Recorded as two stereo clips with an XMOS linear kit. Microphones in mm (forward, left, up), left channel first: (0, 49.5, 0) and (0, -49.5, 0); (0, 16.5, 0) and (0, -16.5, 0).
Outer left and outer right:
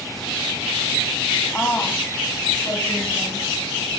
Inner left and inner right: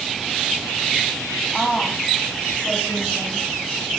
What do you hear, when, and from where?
1.5 s a woman speaking: 10° left (ahead or behind), 1.1 m; by 4.0 s 45° left (ahead or behind), 3 m